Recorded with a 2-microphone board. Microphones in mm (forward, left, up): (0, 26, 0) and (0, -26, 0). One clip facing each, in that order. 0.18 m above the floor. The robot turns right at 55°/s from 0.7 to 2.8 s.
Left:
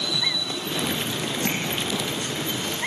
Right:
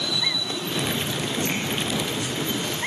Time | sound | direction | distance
1.4 | tapping | 80° left | 5 m